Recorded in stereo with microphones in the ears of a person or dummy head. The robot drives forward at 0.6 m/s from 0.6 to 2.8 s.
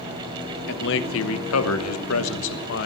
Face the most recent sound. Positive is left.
turn(degrees=65)  # may be behind; listen again after turning